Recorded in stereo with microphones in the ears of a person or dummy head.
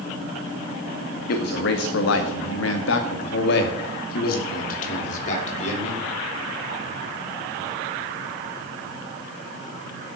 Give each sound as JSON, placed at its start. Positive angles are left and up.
{"t": 1.3, "sound": "a man speaking", "side_deg": 55, "distance_m": 1.7}